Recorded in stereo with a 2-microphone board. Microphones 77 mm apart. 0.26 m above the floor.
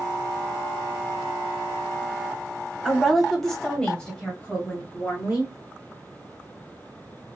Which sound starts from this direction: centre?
A woman speaking, at 2.9 s.